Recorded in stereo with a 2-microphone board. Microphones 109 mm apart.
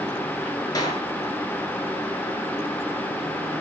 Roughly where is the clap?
Left.